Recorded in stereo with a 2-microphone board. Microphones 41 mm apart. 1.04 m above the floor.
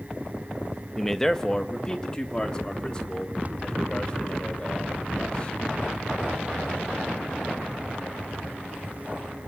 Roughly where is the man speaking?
Centre.